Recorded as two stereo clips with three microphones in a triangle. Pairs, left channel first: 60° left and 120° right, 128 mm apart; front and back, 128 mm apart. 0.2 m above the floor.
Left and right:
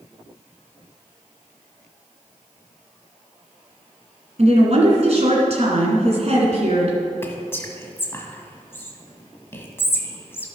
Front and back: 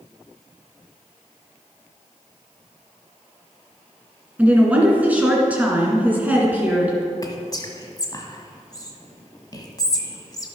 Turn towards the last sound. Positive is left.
turn(degrees=5)